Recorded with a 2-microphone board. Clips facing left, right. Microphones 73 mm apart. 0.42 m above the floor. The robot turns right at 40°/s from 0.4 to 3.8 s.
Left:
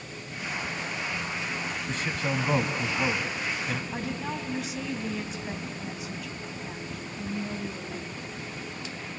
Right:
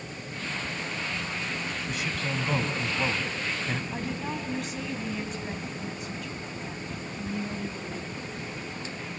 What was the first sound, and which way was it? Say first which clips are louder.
A man speaking: left 3 dB; 135° left.